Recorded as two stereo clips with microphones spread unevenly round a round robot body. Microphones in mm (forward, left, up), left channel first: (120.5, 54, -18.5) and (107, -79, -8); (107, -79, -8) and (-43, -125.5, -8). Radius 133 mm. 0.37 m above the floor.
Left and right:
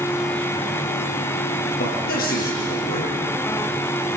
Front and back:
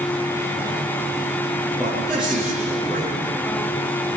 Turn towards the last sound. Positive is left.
turn(degrees=110)